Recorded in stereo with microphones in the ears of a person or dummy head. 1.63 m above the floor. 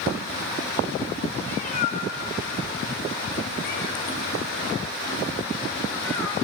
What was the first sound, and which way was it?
A cat meowing, 55° left (ahead or behind).